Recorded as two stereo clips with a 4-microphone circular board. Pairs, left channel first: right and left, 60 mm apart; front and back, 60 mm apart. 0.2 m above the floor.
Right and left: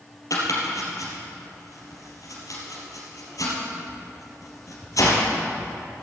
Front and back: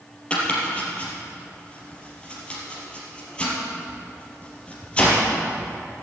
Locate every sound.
0.3 s chopping: 70° right, 4.5 m